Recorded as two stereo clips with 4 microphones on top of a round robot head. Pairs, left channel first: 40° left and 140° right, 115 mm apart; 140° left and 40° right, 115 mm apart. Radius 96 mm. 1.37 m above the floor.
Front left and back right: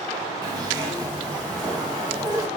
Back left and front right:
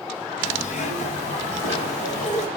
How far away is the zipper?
About 1.7 m.